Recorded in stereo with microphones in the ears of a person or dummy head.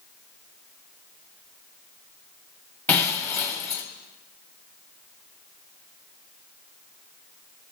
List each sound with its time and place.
2.9 s breaking glass: 10° left (ahead or behind), 2 m